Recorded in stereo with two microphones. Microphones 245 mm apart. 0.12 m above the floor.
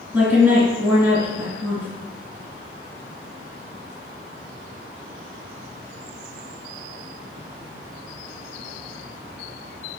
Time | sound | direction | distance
0.1 | a woman speaking | 10° right (ahead or behind) | 1.8 m